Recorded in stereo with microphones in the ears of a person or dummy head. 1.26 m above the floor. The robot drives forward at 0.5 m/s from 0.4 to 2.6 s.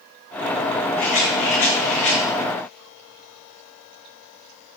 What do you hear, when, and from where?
1.0 s a rattle: 45° left (ahead or behind), 3.5 m; by 2.2 s 40° left (ahead or behind), 4 m